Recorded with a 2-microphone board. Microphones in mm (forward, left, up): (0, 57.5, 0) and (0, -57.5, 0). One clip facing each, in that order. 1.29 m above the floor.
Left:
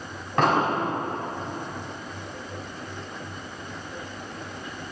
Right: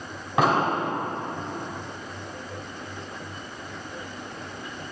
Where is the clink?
I don't hear a clink.